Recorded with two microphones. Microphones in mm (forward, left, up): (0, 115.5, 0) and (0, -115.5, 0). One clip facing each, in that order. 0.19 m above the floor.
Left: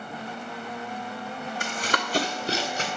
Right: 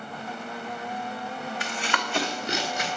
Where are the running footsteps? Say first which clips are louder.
Left 1 dB; 50° left (ahead or behind), 0.8 m; by 2.9 s 30° left (ahead or behind), 1.8 m.